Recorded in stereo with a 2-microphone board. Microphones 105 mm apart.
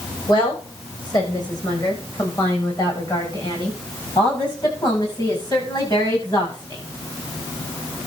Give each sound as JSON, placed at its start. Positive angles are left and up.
{"t": 0.3, "sound": "a woman speaking", "side_deg": 40, "distance_m": 8.5}